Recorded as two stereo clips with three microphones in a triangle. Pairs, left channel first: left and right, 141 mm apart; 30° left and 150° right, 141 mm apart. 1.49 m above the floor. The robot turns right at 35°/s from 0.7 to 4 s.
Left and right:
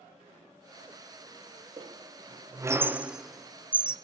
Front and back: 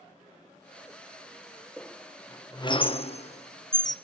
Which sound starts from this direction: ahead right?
A squeak, at 1.8 s.